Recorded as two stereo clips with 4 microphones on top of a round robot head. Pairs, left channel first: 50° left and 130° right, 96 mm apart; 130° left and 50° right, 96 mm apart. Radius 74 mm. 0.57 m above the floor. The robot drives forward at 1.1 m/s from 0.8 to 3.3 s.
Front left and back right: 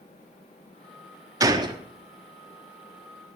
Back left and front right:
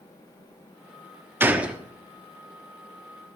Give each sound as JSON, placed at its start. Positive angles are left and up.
{"t": 1.4, "sound": "a gunshot", "azimuth_deg": -105, "distance_m": 1.2}